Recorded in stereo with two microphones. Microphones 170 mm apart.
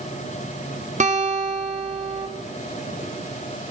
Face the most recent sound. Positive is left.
turn(degrees=-45)  # may be behind; listen again after turning